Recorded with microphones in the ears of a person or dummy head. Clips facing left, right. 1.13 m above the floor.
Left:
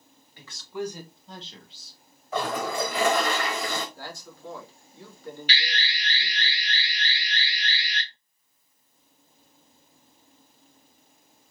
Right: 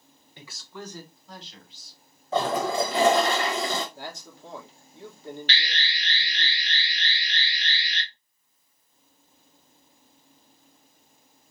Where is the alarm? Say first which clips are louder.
Left 1 dB; 15° left (ahead or behind), 1.8 m.